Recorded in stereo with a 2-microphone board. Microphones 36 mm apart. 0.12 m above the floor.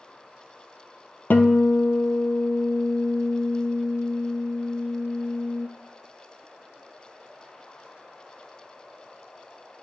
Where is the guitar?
70° left (ahead or behind), 0.8 m.